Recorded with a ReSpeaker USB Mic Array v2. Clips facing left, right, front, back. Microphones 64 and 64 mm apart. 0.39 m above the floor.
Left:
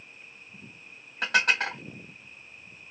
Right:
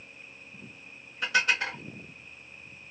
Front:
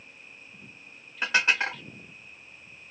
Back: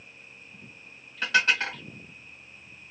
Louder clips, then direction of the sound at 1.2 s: Left 2 dB, back 1 dB; 70° left.